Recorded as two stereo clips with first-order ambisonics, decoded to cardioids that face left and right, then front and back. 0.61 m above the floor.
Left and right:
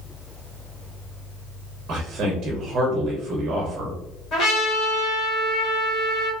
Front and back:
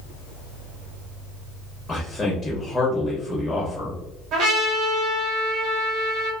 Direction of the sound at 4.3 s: 140° left.